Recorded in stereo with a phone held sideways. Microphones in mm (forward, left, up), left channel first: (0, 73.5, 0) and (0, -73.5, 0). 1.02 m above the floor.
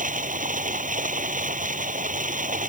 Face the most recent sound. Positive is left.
turn(degrees=-60)  # may be behind; listen again after turning